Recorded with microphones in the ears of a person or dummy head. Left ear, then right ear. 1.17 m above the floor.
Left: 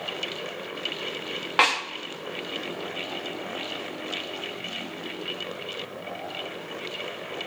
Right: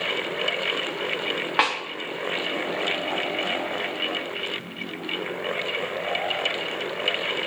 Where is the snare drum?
15° right (ahead or behind), 0.9 m.